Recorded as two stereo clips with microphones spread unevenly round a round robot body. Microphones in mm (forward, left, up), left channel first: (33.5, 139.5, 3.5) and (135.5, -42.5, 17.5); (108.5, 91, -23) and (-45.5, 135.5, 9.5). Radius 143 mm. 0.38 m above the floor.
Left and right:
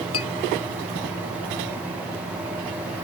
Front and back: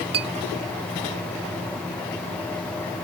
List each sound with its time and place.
0.1 s a clink: 165° left